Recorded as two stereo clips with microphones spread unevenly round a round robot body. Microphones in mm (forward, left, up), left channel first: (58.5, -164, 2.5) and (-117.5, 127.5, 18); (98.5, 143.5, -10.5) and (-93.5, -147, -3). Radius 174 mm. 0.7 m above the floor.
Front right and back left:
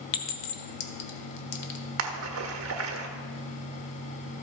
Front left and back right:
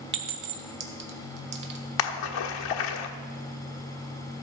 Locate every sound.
0.1 s a clink: 65° right, 1.4 m
2.0 s a splash: 65° left, 1.3 m